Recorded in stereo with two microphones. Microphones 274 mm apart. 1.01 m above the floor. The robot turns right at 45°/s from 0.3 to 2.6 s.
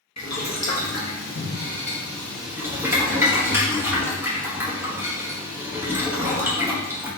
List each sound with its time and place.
0.2 s boiling: 75° left (ahead or behind), 1.2 m; by 7.1 s 10° right (ahead or behind), 1.2 m